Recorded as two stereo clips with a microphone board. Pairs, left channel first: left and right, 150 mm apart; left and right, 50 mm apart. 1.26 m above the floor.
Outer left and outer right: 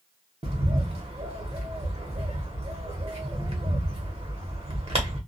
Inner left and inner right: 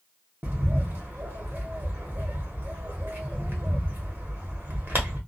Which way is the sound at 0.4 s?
45° right (ahead or behind).